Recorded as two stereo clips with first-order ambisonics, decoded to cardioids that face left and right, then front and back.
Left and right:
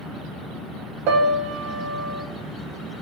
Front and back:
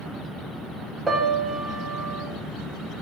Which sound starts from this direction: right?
A piano, at 1.1 s.